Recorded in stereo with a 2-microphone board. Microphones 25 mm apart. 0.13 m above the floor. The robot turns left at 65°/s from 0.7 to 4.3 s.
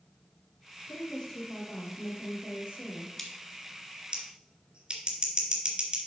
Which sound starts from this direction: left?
A woman speaking, at 0.9 s.